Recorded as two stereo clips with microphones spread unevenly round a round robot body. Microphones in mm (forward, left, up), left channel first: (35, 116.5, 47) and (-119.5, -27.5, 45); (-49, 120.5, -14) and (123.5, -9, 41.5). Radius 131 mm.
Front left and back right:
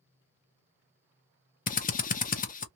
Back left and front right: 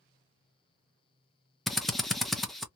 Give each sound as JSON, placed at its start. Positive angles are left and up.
{"t": 1.7, "sound": "a drill", "azimuth_deg": 70, "distance_m": 0.7}